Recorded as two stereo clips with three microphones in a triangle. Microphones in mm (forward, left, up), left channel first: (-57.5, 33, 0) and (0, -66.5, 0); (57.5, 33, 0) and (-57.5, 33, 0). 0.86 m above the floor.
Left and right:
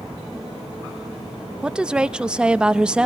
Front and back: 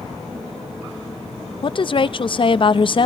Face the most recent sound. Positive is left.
turn(degrees=20)